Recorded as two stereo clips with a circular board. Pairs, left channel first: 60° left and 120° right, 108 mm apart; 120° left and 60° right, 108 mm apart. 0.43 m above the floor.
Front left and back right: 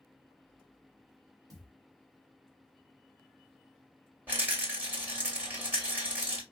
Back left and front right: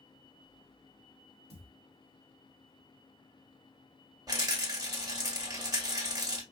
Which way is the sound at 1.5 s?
65° right.